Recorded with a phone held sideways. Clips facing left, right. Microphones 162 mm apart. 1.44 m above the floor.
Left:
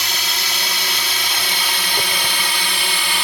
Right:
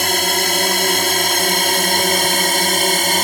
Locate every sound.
0.0 s a drone: 50° right (ahead or behind); by 3.2 s 45° right (ahead or behind)